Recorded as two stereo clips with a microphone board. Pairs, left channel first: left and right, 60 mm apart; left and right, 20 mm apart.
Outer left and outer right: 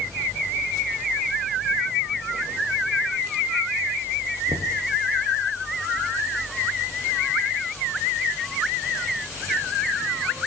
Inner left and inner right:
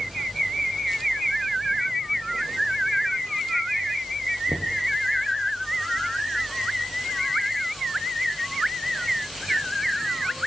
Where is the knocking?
60° right (ahead or behind), 1.9 m.